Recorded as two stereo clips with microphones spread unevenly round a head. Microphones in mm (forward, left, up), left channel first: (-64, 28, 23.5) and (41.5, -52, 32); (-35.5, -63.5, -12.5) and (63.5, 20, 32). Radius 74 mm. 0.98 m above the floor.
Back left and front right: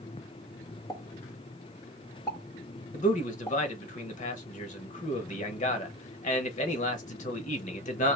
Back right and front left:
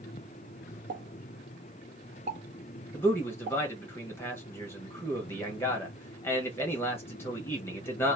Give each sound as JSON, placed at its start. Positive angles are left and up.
{"t": 0.9, "sound": "a pop", "azimuth_deg": 80, "distance_m": 0.9}
{"t": 2.9, "sound": "a man speaking", "azimuth_deg": 155, "distance_m": 1.3}